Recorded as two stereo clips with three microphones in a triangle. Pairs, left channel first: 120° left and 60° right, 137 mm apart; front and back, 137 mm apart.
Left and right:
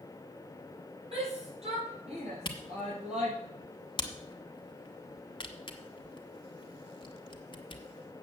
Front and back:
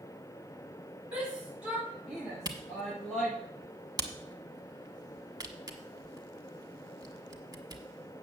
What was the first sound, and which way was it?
A shout, 100° right.